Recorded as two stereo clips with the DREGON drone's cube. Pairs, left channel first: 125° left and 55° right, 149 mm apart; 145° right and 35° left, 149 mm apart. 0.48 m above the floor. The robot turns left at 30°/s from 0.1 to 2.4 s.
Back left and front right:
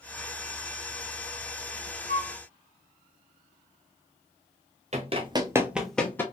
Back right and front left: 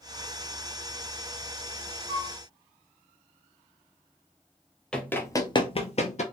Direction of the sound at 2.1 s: 80° right.